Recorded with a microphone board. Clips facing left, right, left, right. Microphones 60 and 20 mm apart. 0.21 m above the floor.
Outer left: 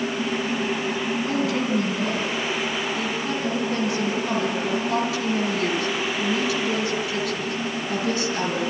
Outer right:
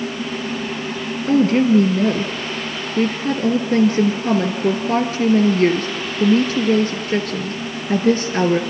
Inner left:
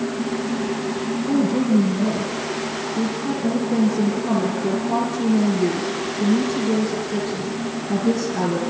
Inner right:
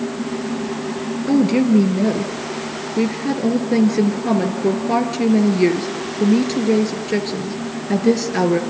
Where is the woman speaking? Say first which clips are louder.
Outer right 12 dB, inner right 4 dB; 45° right (ahead or behind), 4 m.